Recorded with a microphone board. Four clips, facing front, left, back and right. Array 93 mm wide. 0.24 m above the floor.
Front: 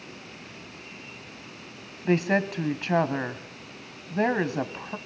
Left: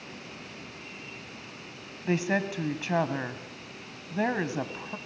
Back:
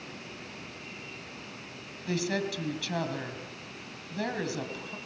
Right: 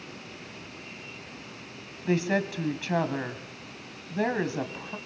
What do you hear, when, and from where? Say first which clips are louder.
2.0 s a woman speaking: right 1 dB, front 7 dB; 10° left, 1.3 m